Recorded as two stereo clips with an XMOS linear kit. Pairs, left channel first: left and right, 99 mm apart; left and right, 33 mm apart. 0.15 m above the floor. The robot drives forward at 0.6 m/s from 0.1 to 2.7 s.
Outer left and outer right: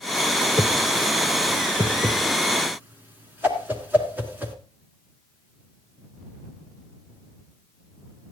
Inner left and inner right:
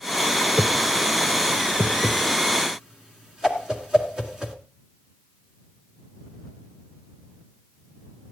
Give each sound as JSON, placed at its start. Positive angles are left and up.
{"t": 0.6, "sound": "a whoosh", "side_deg": -25, "distance_m": 1.7}